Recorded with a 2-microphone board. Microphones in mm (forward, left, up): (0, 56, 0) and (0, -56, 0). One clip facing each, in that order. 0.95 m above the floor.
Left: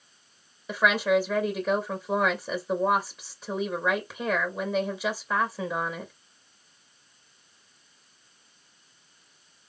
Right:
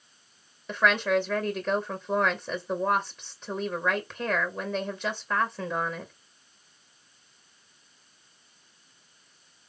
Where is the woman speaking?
5° left (ahead or behind), 0.9 m.